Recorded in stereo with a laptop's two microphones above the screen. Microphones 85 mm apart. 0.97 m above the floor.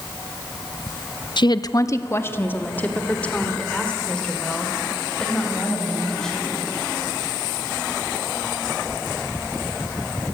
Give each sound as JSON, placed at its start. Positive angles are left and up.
{"t": 1.4, "sound": "a woman speaking", "side_deg": 60, "distance_m": 0.8}